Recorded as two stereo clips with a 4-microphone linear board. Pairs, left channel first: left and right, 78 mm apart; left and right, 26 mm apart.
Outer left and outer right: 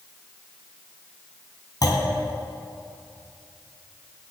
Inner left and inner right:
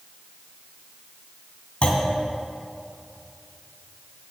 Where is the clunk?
50° left (ahead or behind), 2.5 m.